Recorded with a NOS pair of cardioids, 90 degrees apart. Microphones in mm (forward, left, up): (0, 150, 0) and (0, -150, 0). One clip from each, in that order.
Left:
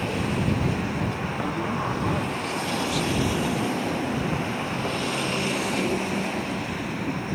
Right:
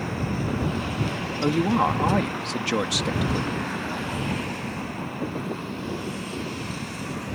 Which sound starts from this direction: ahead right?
A woman speaking, at 1.4 s.